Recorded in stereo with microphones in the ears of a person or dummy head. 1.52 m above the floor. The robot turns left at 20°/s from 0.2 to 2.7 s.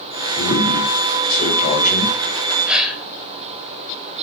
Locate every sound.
0.4 s a man speaking: 65° left, 6 m; by 2.2 s 30° left, 6 m
2.7 s a gasp: 5° right (ahead or behind), 3 m